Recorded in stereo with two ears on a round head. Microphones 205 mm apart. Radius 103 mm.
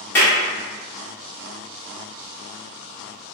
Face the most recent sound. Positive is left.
turn(degrees=10)  # may be behind; listen again after turning